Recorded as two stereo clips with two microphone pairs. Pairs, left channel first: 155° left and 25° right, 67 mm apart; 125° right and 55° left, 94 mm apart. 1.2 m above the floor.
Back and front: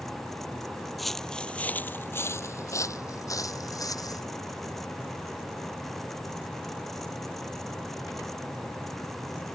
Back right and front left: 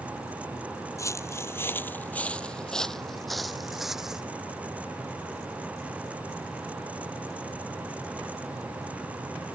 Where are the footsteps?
115° right; by 4.2 s 140° left.